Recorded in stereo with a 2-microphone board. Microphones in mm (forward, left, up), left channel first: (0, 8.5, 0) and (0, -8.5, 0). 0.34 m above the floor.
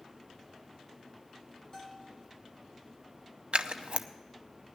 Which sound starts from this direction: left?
A bell, at 1.7 s.